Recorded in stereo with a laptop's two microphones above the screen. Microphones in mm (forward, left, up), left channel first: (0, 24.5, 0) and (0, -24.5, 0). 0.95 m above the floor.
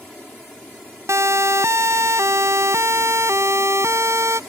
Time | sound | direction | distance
1.1 | a siren | 60° right (ahead or behind) | ?